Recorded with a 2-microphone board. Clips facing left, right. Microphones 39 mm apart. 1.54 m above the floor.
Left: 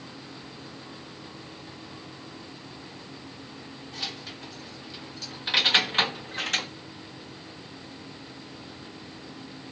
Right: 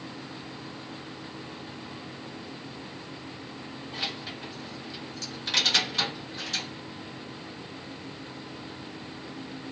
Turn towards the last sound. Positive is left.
turn(degrees=65)  # may be behind; listen again after turning